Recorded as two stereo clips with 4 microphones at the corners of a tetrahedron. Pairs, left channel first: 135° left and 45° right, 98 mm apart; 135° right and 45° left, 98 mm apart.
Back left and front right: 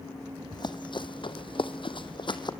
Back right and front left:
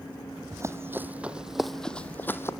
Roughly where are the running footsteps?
Left.